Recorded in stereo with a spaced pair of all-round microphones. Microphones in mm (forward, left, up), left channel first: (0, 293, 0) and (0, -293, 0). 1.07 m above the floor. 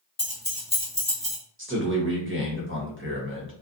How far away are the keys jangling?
About 0.5 m.